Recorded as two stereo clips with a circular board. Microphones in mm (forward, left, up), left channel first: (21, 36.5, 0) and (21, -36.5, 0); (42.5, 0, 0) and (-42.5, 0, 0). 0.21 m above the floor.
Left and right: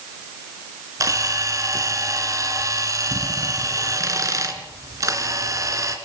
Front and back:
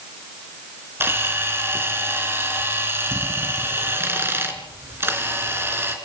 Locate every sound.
1.0 s a camera shutter: 120° right, 3.5 m